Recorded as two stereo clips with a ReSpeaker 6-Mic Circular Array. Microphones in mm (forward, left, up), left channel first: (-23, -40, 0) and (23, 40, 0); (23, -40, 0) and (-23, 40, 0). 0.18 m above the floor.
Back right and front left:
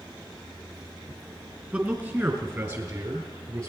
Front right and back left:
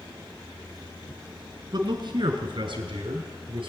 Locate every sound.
1.7 s a man speaking: 125° left, 1.8 m; by 3.7 s 105° left, 3 m